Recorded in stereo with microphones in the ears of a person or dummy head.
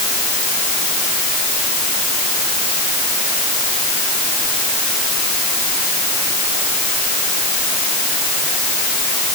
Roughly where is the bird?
I don't hear a bird.